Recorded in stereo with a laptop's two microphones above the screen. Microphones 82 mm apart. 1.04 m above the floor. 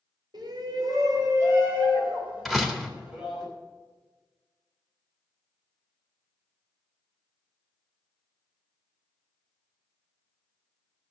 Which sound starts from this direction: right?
A shout, at 0.3 s.